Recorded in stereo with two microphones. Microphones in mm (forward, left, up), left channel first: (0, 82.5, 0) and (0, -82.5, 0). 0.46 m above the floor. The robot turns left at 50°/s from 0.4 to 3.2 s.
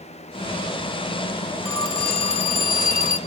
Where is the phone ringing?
160° left, 1.5 m; by 3.2 s 85° left, 1.5 m.